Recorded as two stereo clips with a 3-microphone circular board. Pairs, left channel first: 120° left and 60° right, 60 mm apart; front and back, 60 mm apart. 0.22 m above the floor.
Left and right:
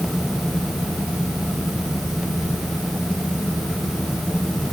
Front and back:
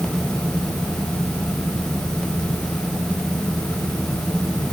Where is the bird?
I don't hear a bird.